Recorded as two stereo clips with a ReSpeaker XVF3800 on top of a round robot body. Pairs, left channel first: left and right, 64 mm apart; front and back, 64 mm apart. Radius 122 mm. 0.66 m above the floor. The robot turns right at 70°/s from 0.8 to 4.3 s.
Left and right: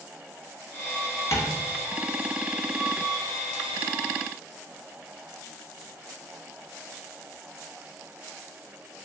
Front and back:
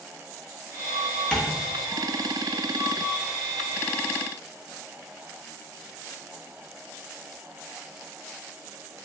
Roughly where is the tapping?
Left.